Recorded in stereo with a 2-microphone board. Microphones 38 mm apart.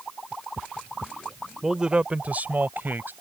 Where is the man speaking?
10° right (ahead or behind); by 3.1 s 65° right (ahead or behind).